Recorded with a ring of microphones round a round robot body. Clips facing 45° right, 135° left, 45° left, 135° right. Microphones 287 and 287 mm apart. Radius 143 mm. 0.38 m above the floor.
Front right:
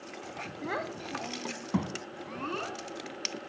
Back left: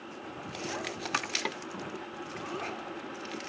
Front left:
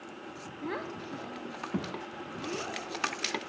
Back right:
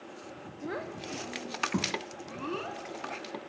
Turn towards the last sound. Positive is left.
turn(degrees=-60)